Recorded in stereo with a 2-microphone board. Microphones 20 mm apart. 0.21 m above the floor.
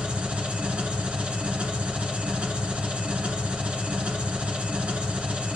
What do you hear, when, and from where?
0.0 s an engine running: 65° right (ahead or behind), 1.8 m